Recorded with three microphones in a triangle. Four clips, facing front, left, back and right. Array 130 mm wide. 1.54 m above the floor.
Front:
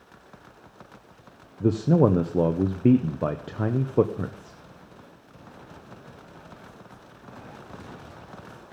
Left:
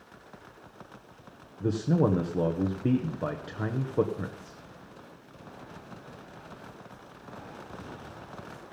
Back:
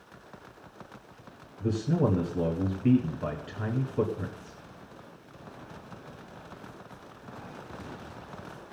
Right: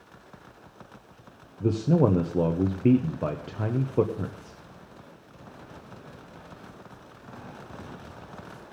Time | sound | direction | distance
1.6 | a man speaking | 15° right | 0.9 m